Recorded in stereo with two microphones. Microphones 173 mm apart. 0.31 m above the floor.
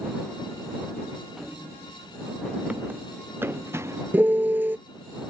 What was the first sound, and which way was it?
Running footsteps, centre (ahead or behind).